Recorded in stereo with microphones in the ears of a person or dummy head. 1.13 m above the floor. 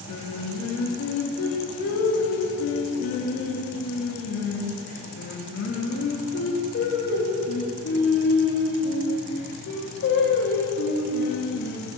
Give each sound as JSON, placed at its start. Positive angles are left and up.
{"t": 0.1, "sound": "singing", "side_deg": 55, "distance_m": 0.7}